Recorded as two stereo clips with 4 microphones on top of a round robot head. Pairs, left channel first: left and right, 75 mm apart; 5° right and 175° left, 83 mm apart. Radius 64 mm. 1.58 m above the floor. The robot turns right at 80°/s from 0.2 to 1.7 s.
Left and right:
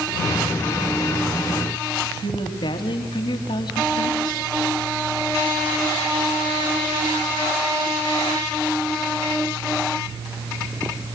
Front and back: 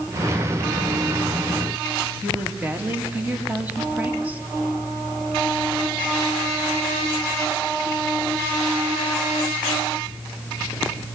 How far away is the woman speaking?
About 3.5 m.